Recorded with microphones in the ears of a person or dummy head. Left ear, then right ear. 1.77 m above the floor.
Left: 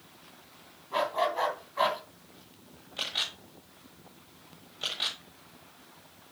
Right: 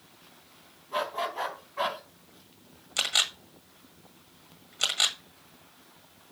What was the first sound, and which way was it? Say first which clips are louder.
A dog barking: left 3 dB; centre (ahead or behind).